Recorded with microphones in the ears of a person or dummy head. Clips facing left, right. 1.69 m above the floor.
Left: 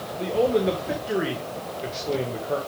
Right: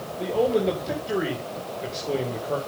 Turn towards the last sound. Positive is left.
turn(degrees=5)  # may be behind; listen again after turning